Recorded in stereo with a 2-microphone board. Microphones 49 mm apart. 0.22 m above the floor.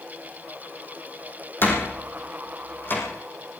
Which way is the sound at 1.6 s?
50° left (ahead or behind).